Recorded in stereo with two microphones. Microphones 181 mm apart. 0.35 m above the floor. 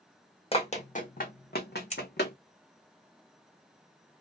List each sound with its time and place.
0.5 s running footsteps: 35° left (ahead or behind), 0.9 m; by 2.4 s 70° left (ahead or behind), 1.1 m
1.9 s scissors: 40° left (ahead or behind), 1.9 m